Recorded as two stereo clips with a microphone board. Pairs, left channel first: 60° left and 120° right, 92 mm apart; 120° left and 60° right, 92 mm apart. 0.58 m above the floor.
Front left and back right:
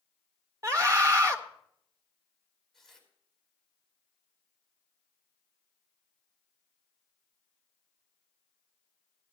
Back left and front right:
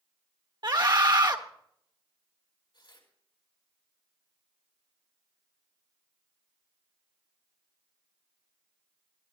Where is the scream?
80° right, 1.8 m.